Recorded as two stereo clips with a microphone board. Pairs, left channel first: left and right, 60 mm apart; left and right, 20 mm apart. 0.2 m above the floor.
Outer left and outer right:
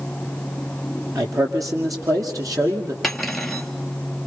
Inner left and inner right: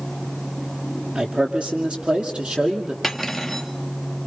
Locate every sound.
1.1 s a man speaking: 70° right (ahead or behind), 4.5 m; by 2.9 s 75° right (ahead or behind), 7 m
3.0 s cutlery clinking: 5° left (ahead or behind), 2.5 m